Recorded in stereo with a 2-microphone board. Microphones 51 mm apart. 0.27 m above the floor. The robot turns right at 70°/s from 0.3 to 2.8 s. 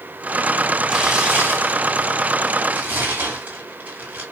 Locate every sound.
0.9 s tearing paper: 5° left (ahead or behind), 2 m; by 4.2 s 40° right (ahead or behind), 2 m